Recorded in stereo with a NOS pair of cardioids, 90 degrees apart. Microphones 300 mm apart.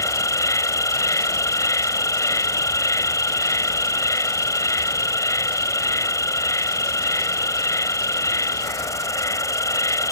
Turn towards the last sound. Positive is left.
turn(degrees=10)